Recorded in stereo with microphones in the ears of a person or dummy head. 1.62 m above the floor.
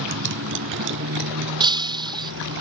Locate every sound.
0.0 s a motorcycle: 65° right (ahead or behind); by 2.6 s 70° right (ahead or behind)
1.6 s breaking glass: 20° right (ahead or behind)